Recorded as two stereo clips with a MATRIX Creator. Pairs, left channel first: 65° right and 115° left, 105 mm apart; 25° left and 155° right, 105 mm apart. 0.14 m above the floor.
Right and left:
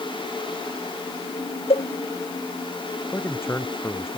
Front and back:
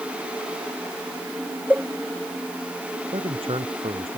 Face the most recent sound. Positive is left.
turn(degrees=-135)